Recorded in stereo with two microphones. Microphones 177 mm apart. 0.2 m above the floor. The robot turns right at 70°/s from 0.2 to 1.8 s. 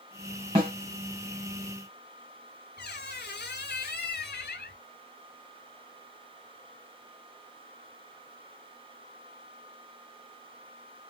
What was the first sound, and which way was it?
A snare drum, 30° right (ahead or behind).